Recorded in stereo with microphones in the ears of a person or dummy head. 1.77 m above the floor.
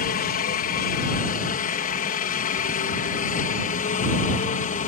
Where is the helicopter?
45° left (ahead or behind); by 4.9 s 40° left (ahead or behind).